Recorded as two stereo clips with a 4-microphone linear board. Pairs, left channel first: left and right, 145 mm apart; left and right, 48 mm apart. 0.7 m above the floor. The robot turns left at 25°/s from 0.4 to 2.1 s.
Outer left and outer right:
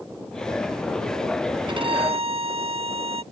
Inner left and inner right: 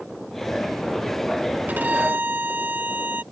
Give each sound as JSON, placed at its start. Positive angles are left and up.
{"t": 1.7, "sound": "a violin", "side_deg": -35}